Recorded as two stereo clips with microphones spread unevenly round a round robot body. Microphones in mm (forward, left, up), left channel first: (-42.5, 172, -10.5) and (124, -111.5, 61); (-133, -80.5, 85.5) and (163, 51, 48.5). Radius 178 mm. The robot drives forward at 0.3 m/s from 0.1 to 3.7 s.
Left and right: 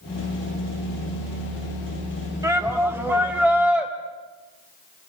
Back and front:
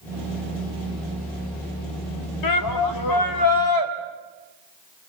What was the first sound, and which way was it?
A shout, 145° right.